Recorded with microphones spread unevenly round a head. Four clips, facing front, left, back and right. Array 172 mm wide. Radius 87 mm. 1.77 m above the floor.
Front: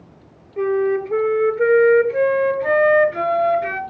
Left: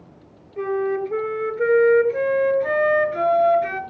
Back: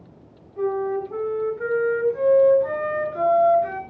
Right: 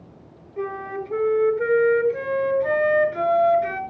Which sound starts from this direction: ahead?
A flute, at 0.6 s.